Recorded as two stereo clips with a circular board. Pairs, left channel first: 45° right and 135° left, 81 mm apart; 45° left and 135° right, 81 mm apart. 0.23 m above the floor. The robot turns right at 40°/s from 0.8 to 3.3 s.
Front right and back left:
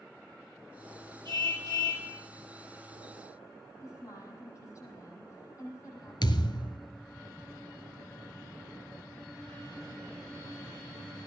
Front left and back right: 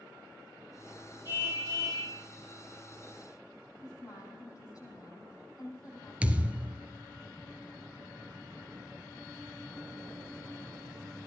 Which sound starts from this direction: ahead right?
A thud, at 6.2 s.